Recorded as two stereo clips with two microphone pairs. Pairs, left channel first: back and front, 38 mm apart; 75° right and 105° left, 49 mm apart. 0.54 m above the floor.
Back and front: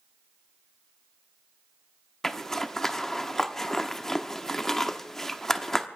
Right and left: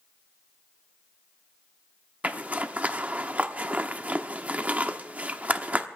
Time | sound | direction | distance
2.2 | a zipper | 115° left | 0.9 m